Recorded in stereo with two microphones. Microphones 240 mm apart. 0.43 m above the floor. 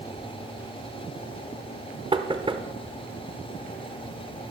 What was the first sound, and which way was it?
Knocking, 25° right (ahead or behind).